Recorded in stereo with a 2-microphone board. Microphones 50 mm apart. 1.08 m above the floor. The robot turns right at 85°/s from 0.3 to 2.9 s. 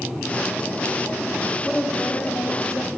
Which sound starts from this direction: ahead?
A woman speaking, at 1.6 s.